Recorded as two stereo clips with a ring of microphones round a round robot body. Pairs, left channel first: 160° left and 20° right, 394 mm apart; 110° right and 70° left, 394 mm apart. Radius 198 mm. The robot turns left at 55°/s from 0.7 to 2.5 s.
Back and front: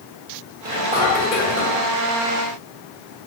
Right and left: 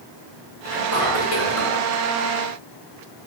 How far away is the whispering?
About 1.8 m.